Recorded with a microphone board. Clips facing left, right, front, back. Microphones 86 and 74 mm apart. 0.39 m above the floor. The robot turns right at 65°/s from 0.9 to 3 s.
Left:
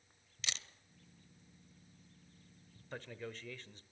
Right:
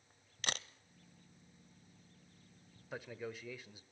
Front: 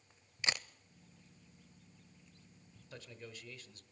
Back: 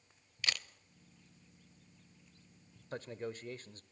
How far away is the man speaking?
About 1.1 m.